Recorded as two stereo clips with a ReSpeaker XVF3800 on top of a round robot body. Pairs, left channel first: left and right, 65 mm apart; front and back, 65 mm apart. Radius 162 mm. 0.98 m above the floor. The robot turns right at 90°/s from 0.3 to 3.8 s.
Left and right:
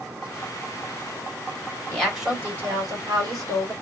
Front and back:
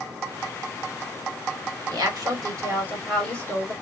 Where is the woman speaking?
160° left, 1.8 m; by 3.7 s 40° right, 1.8 m.